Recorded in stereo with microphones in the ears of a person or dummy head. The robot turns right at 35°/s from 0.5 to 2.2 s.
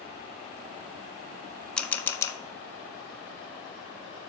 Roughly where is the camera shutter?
Centre.